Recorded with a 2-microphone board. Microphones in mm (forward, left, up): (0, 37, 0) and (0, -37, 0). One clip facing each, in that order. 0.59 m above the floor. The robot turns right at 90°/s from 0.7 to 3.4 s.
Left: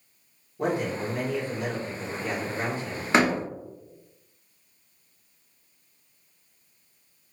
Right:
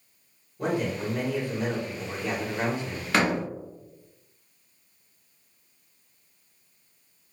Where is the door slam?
25° left (ahead or behind), 0.6 m; by 3.4 s 5° left (ahead or behind), 0.6 m.